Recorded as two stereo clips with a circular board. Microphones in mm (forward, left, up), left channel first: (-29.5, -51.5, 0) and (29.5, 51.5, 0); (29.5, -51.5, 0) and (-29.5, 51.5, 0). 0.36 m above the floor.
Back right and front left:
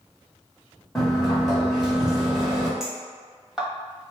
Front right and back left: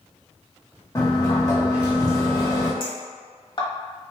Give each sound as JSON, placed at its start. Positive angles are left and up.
{"t": 0.9, "sound": "a sliding door", "azimuth_deg": -35, "distance_m": 1.2}
{"t": 2.8, "sound": "a clink", "azimuth_deg": -25, "distance_m": 1.1}